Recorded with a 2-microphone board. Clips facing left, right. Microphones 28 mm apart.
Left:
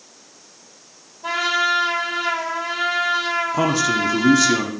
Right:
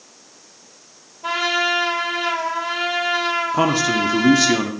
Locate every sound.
1.2 s a trumpet: 20° right (ahead or behind), 3.5 m
3.5 s a man speaking: 20° right (ahead or behind), 1.2 m